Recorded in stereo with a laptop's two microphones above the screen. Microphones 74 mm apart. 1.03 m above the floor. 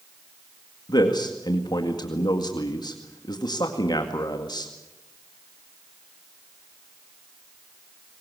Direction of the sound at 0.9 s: 70° left (ahead or behind).